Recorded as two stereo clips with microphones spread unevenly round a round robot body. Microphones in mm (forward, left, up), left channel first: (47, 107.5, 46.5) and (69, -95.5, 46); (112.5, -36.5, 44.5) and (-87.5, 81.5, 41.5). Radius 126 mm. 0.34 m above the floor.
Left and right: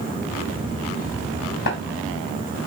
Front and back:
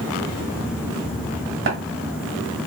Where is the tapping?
130° left, 1.9 m.